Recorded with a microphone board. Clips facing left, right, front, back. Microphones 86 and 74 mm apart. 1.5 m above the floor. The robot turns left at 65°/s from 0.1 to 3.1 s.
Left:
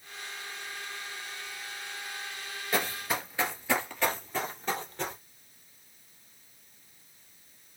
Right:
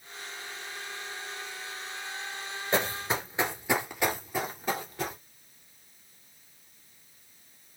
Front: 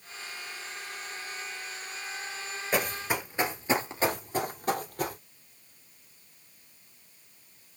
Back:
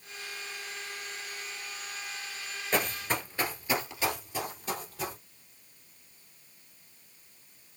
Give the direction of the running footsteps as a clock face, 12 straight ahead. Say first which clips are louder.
Right 2 dB, front 1 dB; 2 o'clock.